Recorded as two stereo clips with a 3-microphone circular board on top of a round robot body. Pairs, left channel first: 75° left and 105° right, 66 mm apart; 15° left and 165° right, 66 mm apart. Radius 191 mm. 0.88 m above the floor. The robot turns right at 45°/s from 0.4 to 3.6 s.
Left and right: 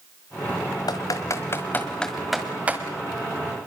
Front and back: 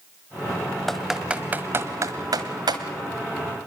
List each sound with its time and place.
0.9 s typing on a keyboard: 100° left, 1.2 m; by 2.8 s 170° right, 1.2 m